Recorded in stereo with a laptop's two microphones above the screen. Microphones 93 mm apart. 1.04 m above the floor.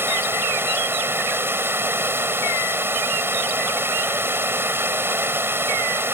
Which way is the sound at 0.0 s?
25° right (ahead or behind).